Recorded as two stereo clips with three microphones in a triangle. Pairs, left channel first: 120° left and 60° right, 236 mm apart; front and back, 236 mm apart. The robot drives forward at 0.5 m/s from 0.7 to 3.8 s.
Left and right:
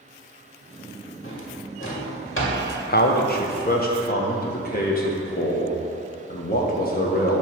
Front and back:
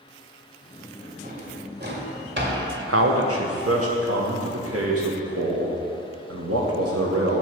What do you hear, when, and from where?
1.2 s a drawer: 130° left, 1.4 m; by 2.6 s 145° left, 1.8 m
2.9 s a man speaking: 165° left, 0.7 m; by 7.4 s 170° left, 1.2 m